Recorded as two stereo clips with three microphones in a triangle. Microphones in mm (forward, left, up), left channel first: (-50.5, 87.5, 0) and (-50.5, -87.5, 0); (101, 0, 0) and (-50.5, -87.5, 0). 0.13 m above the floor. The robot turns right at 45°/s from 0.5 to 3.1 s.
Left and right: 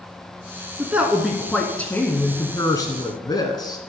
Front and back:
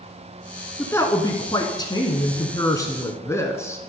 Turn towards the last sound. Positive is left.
turn(degrees=80)